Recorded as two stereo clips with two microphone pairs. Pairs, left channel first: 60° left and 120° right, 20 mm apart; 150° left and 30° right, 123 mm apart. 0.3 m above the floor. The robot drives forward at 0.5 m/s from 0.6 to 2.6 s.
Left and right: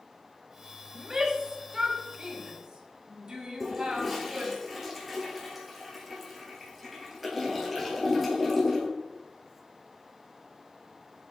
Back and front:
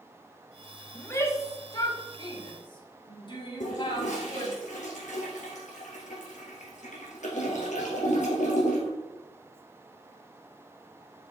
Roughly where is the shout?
Behind right.